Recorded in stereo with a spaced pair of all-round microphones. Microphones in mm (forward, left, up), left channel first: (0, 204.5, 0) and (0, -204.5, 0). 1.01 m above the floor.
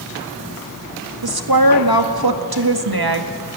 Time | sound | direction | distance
1.2 | a woman speaking | 70° right (ahead or behind) | 2.0 m